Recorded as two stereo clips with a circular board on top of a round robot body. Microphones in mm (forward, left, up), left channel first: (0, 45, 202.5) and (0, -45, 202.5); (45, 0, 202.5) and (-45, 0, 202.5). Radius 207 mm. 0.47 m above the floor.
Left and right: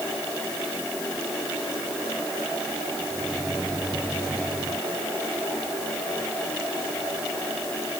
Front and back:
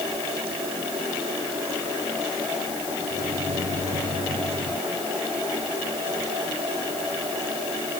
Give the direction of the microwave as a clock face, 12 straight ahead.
6 o'clock.